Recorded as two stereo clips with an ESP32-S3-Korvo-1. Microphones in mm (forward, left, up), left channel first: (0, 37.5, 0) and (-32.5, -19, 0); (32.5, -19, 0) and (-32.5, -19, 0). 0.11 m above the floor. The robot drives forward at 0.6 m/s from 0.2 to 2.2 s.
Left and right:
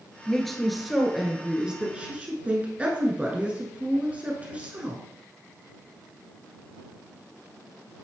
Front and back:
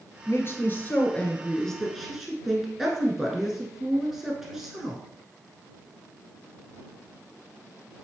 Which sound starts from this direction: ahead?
A woman speaking, at 0.3 s.